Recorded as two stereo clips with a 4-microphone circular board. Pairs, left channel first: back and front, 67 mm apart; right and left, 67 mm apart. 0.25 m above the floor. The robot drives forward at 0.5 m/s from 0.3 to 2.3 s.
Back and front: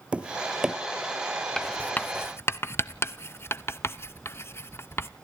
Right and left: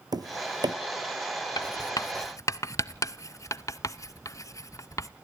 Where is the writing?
95° right, 0.5 m; by 5.1 s 130° right, 0.7 m.